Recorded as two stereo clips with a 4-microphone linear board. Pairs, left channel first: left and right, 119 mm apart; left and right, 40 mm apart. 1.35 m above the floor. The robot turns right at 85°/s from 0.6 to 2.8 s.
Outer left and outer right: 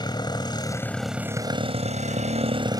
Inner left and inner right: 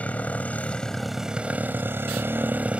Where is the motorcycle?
140° left; by 2.8 s 30° right.